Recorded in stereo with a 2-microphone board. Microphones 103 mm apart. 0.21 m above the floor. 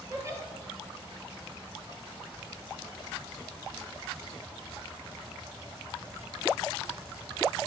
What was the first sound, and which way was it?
A giggle, 30° right (ahead or behind).